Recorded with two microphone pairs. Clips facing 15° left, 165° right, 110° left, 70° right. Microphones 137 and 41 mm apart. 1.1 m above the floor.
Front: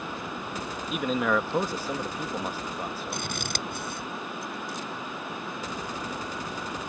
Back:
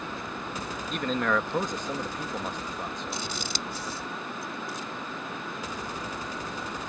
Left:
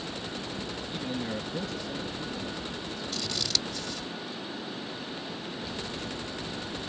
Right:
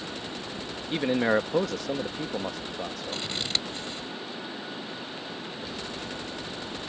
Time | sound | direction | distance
0.9 | a man speaking | 70° right | ?
3.1 | scissors | 10° right | ?